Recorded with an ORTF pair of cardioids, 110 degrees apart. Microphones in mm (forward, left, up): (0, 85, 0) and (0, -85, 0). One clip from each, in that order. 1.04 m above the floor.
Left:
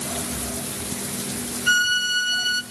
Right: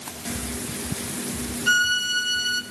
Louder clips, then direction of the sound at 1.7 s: Left 1 dB; 5° left.